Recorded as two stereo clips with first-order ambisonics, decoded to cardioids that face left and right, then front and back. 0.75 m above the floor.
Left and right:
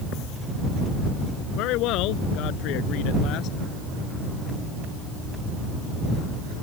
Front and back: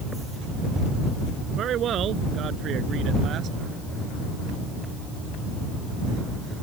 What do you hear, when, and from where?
1.6 s a man speaking: 125° left; by 3.6 s 130° left